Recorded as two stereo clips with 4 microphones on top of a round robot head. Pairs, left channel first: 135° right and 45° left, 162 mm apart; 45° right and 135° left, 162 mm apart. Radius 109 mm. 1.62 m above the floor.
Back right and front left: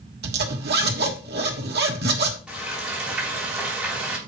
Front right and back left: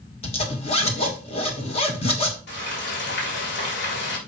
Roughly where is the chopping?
No chopping in this recording.